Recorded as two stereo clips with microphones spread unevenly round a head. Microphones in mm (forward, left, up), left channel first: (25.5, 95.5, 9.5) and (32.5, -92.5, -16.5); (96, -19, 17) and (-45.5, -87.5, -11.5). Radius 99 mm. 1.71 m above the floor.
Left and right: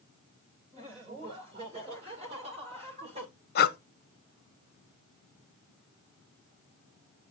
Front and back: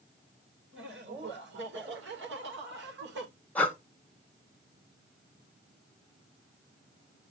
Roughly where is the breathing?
Left.